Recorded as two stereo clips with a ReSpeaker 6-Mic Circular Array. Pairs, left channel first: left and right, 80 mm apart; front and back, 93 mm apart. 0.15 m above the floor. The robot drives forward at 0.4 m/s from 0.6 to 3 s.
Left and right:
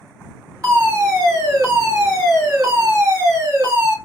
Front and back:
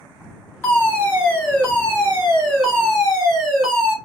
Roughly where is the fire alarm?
Ahead right.